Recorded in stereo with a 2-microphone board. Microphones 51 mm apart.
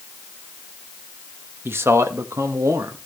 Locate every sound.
1.6 s a man speaking: 45° right (ahead or behind), 1.4 m; by 3.0 s 85° right, 2 m